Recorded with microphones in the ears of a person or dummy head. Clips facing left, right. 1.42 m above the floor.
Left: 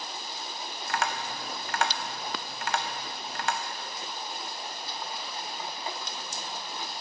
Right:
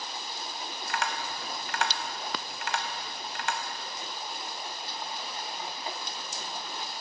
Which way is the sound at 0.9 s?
50° left (ahead or behind).